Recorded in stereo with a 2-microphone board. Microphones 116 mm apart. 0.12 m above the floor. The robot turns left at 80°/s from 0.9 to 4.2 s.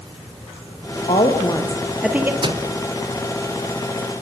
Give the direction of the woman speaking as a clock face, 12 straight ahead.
9 o'clock.